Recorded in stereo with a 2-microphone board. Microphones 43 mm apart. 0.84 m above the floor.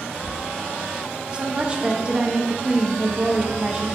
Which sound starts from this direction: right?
A woman speaking, at 1.3 s.